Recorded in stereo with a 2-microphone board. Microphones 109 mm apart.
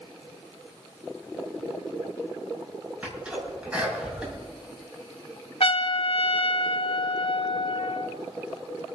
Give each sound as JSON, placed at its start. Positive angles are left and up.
{"t": 3.0, "sound": "a sneeze", "side_deg": -10, "distance_m": 7.0}
{"t": 5.6, "sound": "a trumpet", "side_deg": 70, "distance_m": 0.7}